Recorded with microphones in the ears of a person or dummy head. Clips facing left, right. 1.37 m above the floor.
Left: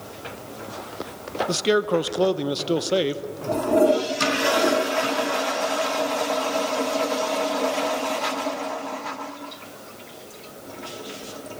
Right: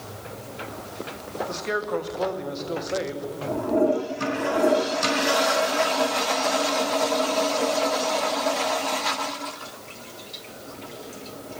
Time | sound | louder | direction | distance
1.5 | a man speaking | left 8 dB | 55° left (ahead or behind) | 1.0 m